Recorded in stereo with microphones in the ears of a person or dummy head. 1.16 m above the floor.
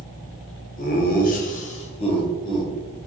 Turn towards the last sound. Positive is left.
turn(degrees=20)  # may be behind; listen again after turning